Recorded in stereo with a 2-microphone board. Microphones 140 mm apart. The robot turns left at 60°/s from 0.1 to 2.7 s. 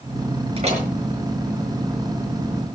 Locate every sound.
0.6 s a door slam: 45° right (ahead or behind), 5.5 m; by 0.9 s 60° right (ahead or behind), 5.5 m